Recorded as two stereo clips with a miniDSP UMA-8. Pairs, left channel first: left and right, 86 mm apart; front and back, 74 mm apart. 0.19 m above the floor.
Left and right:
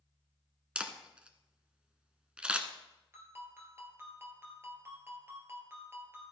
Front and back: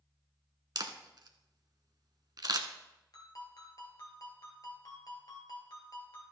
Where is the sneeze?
No sneeze in this recording.